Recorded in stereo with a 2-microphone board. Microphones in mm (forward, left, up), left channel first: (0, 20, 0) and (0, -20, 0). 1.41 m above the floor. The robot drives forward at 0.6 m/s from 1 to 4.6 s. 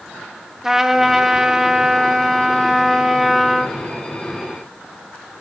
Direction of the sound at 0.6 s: 10° right (ahead or behind).